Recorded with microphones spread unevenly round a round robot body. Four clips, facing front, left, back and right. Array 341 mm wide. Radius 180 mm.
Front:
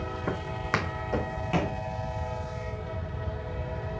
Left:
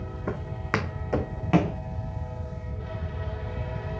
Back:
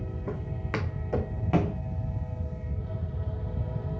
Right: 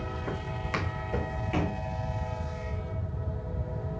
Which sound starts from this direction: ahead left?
Footsteps, at 0.3 s.